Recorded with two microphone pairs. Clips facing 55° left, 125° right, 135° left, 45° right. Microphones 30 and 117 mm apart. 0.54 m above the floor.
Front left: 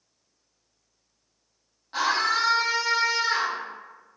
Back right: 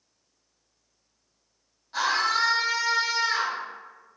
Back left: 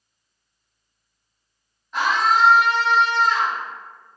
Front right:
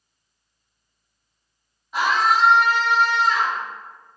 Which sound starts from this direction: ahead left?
A scream, at 1.9 s.